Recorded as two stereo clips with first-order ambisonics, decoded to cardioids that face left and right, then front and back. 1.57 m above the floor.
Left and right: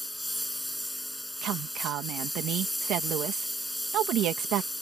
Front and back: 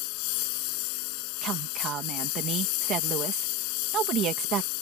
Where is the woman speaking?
130° right.